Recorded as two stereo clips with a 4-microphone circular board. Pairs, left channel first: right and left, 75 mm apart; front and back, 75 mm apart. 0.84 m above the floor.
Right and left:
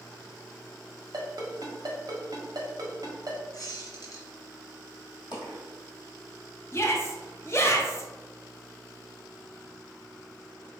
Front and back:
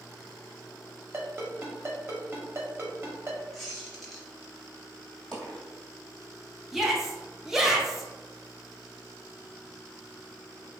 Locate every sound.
1.1 s a ringtone: 125° left, 1.1 m
3.5 s a squeak: 90° right, 1.1 m
5.3 s a dropped coin: 85° right, 1.9 m
6.7 s a shout: 95° right, 0.6 m